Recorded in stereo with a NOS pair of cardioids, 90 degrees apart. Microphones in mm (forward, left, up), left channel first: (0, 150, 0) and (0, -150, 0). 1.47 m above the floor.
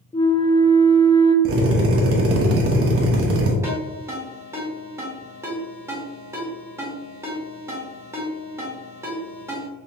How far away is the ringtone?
About 2.0 m.